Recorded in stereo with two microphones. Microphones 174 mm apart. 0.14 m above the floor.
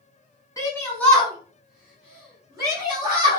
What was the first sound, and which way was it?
A shout, 20° left (ahead or behind).